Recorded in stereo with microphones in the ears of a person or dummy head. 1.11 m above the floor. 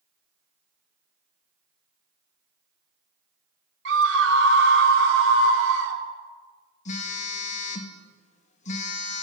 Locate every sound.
3.9 s a scream: 60° right (ahead or behind), 1.1 m
6.8 s a phone buzzing: 40° left (ahead or behind), 0.8 m